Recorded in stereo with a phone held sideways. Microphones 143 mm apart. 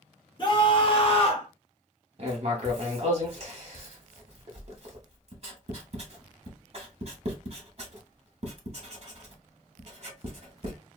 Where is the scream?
30° left (ahead or behind), 1.1 m; by 1.5 s 45° left (ahead or behind), 0.8 m.